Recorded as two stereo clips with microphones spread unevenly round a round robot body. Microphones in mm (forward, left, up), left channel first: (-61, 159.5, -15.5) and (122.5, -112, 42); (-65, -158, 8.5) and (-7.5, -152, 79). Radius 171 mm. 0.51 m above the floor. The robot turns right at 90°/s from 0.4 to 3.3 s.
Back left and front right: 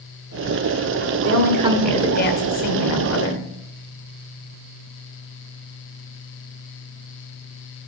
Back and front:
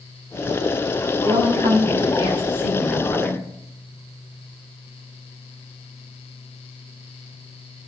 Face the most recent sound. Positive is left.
turn(degrees=170)